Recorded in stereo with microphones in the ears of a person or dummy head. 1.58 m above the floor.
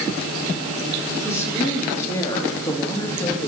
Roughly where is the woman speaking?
Centre.